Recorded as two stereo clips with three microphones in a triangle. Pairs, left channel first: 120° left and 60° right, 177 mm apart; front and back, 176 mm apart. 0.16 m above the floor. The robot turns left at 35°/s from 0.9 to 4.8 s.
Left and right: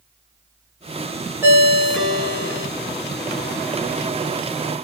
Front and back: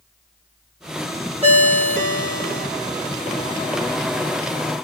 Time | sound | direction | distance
1.4 | a ringtone | 135° right | 1.3 m